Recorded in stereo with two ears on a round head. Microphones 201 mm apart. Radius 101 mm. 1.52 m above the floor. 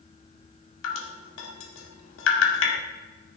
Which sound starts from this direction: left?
Dripping, at 0.8 s.